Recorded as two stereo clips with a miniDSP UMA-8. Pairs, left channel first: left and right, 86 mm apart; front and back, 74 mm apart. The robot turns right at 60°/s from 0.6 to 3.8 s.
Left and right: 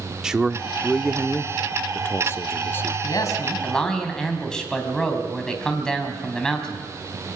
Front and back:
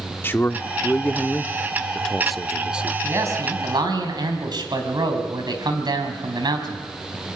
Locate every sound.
0.2 s a man speaking: 15° right, 0.7 m; by 2.9 s 130° left, 0.7 m
3.0 s a man speaking: 125° left, 4 m; by 6.8 s 175° left, 4 m